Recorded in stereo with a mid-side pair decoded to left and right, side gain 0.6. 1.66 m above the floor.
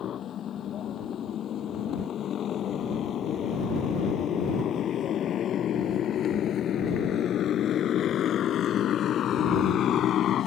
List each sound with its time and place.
0.0 s a motorcycle: 45° left; by 10.5 s 50° left